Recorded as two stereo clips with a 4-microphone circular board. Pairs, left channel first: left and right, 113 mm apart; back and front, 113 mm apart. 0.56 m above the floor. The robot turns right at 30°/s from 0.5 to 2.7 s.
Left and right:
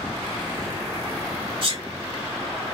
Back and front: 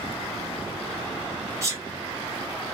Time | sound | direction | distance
1.6 | a sneeze | 60° right | 3 m